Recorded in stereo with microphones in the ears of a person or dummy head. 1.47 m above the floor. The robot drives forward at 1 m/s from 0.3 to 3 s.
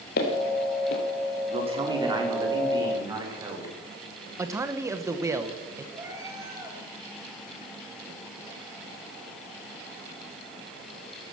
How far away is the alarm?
No alarm in this recording.